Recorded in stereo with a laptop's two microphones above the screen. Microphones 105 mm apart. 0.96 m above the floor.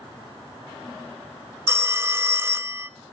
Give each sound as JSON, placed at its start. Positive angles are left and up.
{"t": 1.7, "sound": "a phone ringing", "side_deg": -25, "distance_m": 0.7}